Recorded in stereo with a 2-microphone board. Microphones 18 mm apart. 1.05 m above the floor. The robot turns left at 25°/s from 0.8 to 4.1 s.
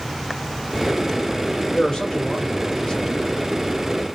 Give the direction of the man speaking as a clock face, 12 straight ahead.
9 o'clock.